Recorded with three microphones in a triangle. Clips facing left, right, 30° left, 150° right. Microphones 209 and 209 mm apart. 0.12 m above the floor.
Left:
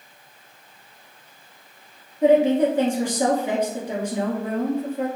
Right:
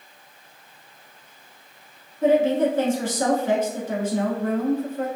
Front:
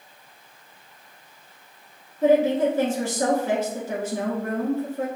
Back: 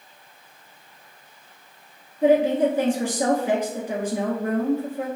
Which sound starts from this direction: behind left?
A woman speaking, at 2.2 s.